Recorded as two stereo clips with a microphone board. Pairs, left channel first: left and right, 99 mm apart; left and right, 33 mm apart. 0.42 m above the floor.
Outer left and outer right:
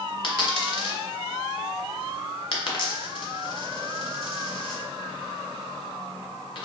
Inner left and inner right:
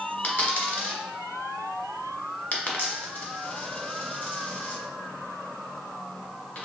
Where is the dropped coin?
60° left (ahead or behind), 1.1 m.